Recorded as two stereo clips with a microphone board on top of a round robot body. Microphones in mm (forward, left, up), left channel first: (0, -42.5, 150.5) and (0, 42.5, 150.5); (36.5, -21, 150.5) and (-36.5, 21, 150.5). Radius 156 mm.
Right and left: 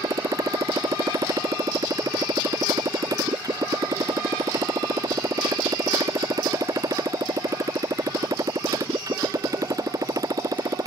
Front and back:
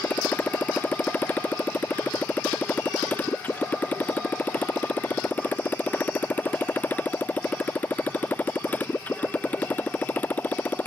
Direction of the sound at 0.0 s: 40° left.